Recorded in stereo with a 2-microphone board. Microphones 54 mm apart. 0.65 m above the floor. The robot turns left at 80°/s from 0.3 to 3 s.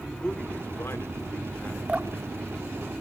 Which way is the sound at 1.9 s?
20° right (ahead or behind).